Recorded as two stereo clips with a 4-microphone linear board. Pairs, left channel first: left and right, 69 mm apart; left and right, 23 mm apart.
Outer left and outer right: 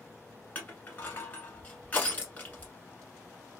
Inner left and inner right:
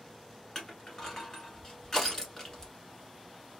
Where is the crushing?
20° left (ahead or behind), 1.1 m.